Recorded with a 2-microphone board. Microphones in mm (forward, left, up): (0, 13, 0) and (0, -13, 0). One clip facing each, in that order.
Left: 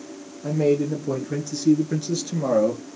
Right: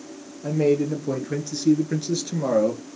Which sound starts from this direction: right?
A man speaking, at 0.4 s.